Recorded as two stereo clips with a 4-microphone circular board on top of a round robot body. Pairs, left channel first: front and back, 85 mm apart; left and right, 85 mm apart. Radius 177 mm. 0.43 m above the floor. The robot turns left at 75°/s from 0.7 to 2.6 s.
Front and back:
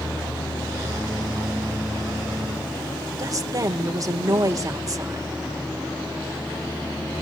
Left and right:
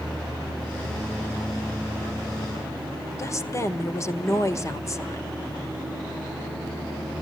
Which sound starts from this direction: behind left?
A woman speaking, at 3.2 s.